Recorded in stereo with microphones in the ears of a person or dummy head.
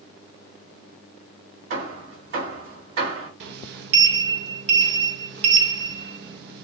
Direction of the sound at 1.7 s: 65° right (ahead or behind).